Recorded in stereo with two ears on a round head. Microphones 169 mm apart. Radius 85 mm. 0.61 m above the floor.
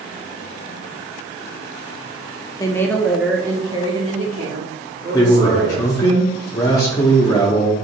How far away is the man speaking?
About 0.7 m.